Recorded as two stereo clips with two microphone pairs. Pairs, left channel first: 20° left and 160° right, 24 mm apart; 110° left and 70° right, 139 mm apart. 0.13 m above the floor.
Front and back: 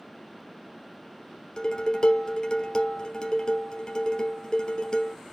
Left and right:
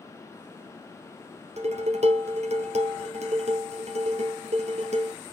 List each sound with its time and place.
1.6 s dishes clattering: 40° right, 1.9 m